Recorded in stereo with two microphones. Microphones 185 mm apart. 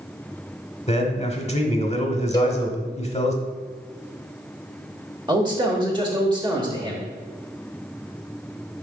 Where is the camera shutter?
No camera shutter in this recording.